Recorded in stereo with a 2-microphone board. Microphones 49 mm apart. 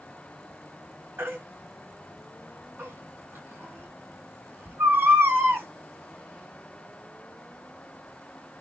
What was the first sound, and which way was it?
A baby crying, 45° right (ahead or behind).